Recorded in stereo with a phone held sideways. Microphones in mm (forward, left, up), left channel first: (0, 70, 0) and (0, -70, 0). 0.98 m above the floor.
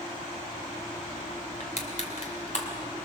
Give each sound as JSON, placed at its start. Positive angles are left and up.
{"t": 1.6, "sound": "crushing", "side_deg": 60, "distance_m": 2.5}